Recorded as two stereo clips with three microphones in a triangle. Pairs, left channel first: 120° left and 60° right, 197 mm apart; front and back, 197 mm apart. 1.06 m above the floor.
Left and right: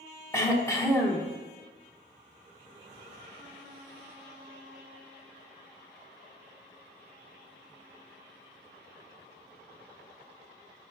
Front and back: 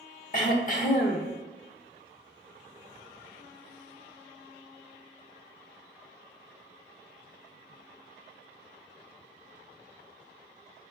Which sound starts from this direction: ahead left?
Throat clearing, at 0.3 s.